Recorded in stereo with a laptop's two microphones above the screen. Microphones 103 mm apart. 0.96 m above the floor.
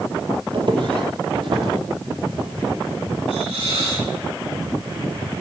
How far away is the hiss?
About 6 m.